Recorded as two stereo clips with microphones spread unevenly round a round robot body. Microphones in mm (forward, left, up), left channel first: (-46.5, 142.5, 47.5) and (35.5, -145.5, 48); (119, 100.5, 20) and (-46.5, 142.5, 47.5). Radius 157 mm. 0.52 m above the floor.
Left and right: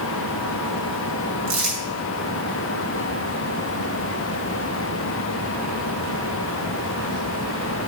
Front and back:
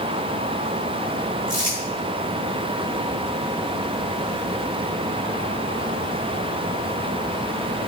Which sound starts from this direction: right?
Crumpling, at 1.5 s.